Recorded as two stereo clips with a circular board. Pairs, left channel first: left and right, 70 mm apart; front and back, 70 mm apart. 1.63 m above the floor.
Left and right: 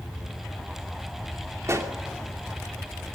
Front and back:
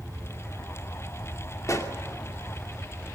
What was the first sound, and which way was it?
A pop, 40° right.